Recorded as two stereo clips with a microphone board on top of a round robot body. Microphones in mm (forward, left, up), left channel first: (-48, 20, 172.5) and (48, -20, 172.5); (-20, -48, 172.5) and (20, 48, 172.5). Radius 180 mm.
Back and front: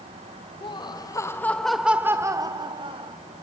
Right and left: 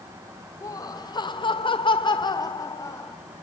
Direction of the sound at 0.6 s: 165° right.